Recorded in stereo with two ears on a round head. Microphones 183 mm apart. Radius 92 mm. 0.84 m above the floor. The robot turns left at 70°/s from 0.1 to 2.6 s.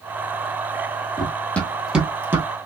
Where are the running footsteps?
20° left (ahead or behind), 1.3 m; by 2.5 s 10° right (ahead or behind), 1.0 m.